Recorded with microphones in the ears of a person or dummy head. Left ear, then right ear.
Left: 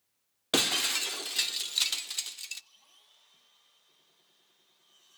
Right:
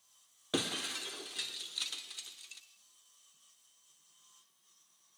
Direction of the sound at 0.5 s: 35° left (ahead or behind).